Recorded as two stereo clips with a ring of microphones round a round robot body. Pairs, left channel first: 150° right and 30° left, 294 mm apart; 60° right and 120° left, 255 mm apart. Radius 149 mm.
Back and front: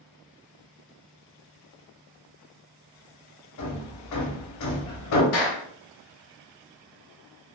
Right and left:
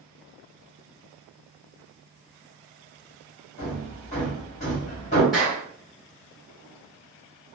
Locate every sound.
3.6 s hammering: 125° right, 0.9 m
5.3 s a clap: 150° right, 1.4 m